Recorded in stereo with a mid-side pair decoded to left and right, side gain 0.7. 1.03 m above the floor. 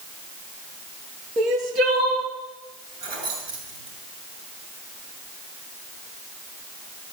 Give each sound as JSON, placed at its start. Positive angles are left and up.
{"t": 1.4, "sound": "crying", "azimuth_deg": -55, "distance_m": 3.0}
{"t": 3.0, "sound": "keys jangling", "azimuth_deg": -70, "distance_m": 8.0}